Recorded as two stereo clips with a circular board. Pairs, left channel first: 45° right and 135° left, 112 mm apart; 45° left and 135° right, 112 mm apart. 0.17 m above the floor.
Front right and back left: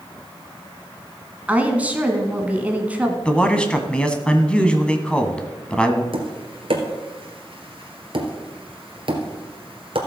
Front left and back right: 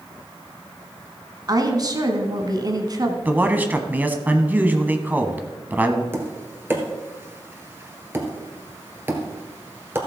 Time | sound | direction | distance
1.5 | a woman speaking | 160° right | 1.5 m
3.2 | a man speaking | 105° right | 1.0 m
6.1 | tapping | 155° left | 1.7 m